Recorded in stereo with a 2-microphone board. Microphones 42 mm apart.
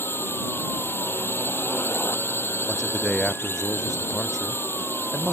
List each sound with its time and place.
0.0 s a drone: 60° left (ahead or behind)
2.7 s a man speaking: 15° left (ahead or behind)